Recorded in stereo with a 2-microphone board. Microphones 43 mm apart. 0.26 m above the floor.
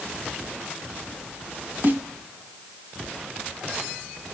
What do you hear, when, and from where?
1.8 s a snare drum: 50° right (ahead or behind), 1.5 m